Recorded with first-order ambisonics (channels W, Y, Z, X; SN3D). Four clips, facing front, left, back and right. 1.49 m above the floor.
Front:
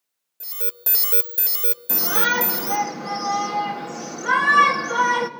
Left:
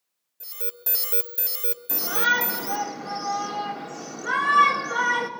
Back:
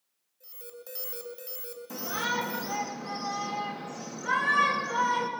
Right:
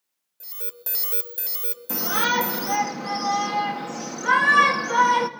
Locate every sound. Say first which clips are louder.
0.4 s an alarm: left 3 dB, front 11 dB; 5° right, 1.4 m
1.9 s a shout: even, front 9 dB; 65° right, 3 m